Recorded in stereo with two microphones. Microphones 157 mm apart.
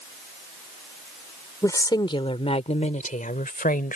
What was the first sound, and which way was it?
A woman speaking, 20° left (ahead or behind).